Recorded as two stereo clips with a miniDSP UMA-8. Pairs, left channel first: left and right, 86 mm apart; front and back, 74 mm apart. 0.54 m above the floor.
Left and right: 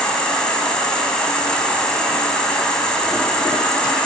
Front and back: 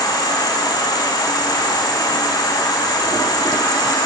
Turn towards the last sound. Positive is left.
turn(degrees=10)